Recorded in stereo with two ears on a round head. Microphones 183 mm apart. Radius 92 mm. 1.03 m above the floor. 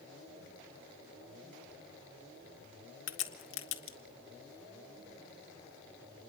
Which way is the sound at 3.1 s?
65° left (ahead or behind).